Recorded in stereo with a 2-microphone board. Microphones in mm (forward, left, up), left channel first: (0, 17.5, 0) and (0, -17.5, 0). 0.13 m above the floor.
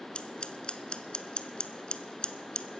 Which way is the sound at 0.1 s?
30° left (ahead or behind).